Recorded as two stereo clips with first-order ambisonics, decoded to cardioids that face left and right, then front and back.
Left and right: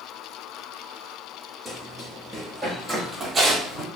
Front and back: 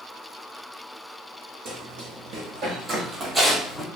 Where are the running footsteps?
170° left, 1.5 m; by 3.9 s 65° right, 0.8 m.